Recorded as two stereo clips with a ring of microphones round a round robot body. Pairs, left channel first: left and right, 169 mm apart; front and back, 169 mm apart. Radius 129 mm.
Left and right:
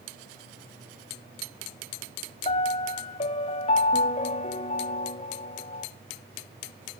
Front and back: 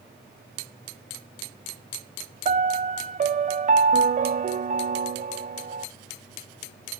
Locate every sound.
2.5 s a piano: 140° left, 0.7 m